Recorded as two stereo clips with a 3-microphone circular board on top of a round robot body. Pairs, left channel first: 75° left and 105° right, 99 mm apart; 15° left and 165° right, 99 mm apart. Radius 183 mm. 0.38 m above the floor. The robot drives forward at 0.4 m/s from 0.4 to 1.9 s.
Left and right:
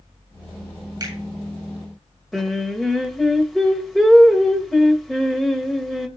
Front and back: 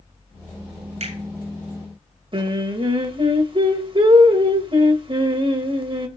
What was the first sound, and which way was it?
A finger snap, 155° right.